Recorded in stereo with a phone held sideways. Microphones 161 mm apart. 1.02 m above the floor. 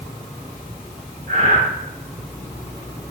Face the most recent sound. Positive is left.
turn(degrees=-70)  # may be behind; listen again after turning